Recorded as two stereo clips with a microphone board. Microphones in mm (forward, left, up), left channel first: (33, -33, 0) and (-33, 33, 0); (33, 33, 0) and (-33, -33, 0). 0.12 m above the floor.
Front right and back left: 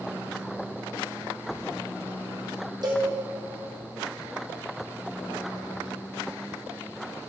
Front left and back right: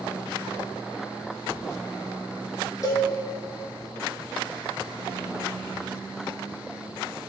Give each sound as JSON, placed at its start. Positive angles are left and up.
{"t": 2.8, "sound": "a cowbell", "azimuth_deg": 95, "distance_m": 2.5}